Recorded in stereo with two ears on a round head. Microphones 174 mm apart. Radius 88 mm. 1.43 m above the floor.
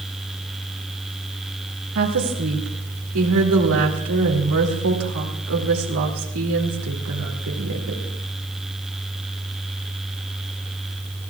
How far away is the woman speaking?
About 2.5 m.